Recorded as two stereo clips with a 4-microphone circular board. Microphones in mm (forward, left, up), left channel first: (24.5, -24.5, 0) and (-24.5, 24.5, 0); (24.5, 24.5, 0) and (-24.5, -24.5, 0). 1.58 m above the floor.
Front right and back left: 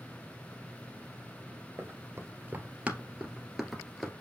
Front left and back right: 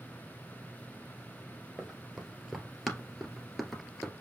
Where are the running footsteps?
145° left, 1.9 m; by 4.1 s 30° right, 1.5 m.